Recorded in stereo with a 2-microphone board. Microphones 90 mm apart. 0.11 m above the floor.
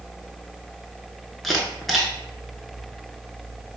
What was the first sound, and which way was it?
A camera shutter, centre (ahead or behind).